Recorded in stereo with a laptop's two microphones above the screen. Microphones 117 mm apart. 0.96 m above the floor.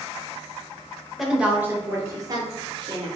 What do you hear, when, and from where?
1.2 s a woman speaking: centre (ahead or behind), 1.1 m; by 3.1 s 45° right (ahead or behind), 1.8 m